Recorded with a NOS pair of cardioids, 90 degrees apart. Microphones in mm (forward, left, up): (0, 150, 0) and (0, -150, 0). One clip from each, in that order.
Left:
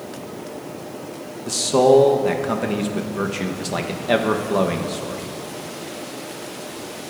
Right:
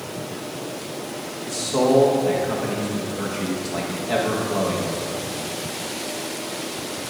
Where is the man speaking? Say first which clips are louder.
Left 5 dB; 45° left, 1.2 m.